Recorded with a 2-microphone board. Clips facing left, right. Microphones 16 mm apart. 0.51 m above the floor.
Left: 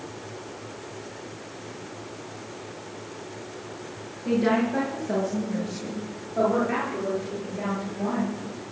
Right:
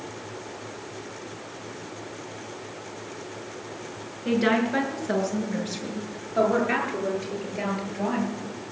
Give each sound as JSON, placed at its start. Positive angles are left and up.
{"t": 4.2, "sound": "a woman speaking", "side_deg": -75, "distance_m": 6.5}